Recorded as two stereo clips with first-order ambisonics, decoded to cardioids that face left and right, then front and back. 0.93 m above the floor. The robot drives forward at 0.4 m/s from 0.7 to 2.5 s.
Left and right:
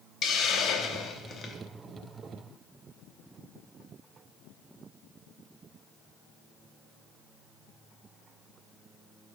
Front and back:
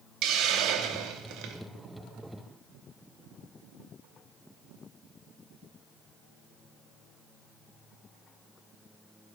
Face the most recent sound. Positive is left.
turn(degrees=165)